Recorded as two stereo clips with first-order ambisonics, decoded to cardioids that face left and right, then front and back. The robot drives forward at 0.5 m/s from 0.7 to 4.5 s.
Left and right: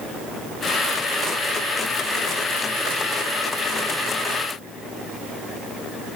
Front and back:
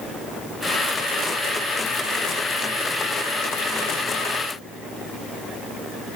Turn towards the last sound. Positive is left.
No sound to turn to.